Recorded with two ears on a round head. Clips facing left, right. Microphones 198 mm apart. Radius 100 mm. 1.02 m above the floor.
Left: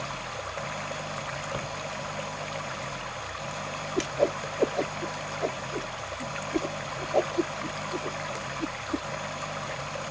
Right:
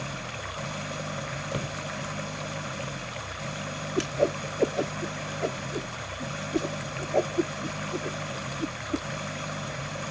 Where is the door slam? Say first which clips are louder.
Right 3 dB; 25° right (ahead or behind).